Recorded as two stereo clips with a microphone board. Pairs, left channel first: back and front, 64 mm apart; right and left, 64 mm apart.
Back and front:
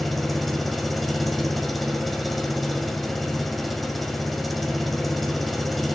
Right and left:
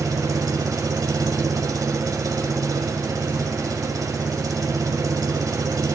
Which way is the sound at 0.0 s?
90° left.